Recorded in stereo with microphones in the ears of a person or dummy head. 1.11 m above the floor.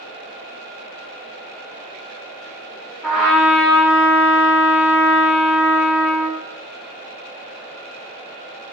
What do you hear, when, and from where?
3.0 s a trumpet: centre (ahead or behind), 0.9 m